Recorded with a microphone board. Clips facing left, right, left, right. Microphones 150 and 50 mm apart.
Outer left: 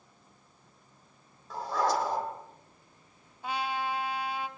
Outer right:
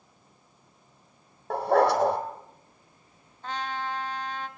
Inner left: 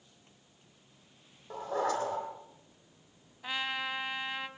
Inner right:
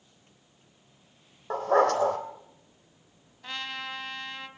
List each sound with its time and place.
1.5 s a dog barking: 65° right (ahead or behind), 3.5 m
3.4 s a trumpet: 10° left (ahead or behind), 1.4 m